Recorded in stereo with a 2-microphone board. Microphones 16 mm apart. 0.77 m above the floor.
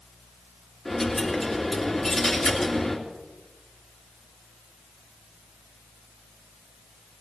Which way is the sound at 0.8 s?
20° left (ahead or behind).